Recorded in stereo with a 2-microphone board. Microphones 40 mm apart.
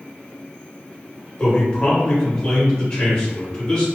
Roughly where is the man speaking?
Centre.